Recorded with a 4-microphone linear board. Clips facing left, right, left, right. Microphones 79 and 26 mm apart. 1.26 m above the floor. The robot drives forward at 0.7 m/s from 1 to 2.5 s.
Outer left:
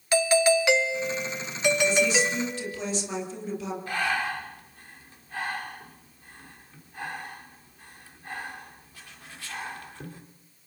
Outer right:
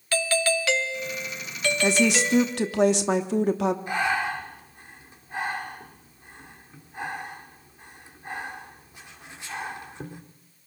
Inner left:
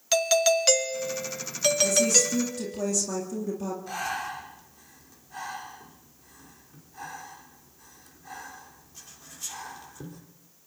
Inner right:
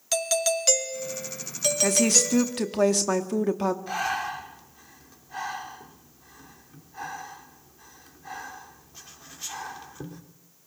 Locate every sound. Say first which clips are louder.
0.1 s a doorbell: outer left 4 dB, inner left 4 dB; 20° left (ahead or behind), 0.6 m; by 2.8 s 10° left (ahead or behind), 1.1 m
1.8 s a woman speaking: outer right 4 dB, inner right 3 dB; 85° right, 2.5 m; by 3.8 s 75° right (ahead or behind), 2.5 m
3.9 s breathing: outer right 2 dB, inner right 4 dB; 20° right (ahead or behind), 3.5 m